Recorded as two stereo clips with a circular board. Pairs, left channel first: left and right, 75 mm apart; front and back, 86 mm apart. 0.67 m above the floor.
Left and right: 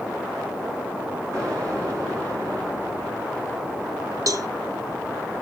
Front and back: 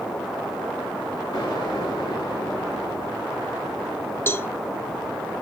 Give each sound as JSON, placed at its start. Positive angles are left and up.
{"t": 1.3, "sound": "an explosion", "azimuth_deg": -40, "distance_m": 6.5}
{"t": 4.3, "sound": "a cowbell", "azimuth_deg": -60, "distance_m": 0.5}